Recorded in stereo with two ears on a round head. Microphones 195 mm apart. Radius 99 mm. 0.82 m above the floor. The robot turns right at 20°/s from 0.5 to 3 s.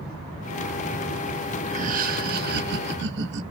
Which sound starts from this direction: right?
Laughter, at 1.7 s.